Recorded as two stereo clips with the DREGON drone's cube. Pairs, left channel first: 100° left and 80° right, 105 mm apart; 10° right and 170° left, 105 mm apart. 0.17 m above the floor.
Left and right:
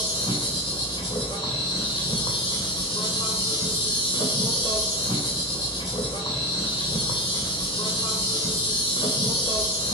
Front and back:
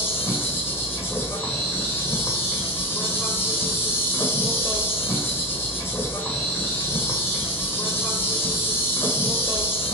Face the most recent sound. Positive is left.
turn(degrees=55)